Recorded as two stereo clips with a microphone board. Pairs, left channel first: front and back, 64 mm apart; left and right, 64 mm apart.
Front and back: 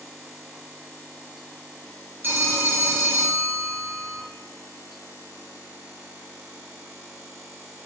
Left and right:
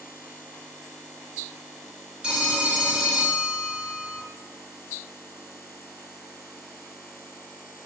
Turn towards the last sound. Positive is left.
turn(degrees=-155)